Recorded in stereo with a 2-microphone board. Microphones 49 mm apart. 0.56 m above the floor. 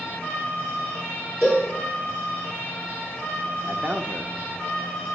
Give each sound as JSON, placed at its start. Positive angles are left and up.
{"t": 1.4, "sound": "a cowbell", "side_deg": -5, "distance_m": 5.0}
{"t": 3.6, "sound": "a man speaking", "side_deg": -35, "distance_m": 0.9}